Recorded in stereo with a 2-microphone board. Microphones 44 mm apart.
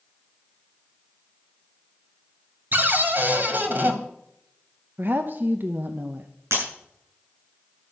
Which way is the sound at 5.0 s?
45° right (ahead or behind).